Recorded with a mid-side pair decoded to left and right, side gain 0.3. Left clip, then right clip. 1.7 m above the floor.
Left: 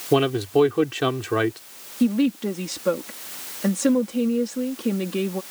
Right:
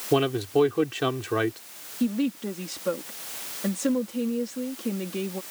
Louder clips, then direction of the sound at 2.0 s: Left 6 dB; 50° left.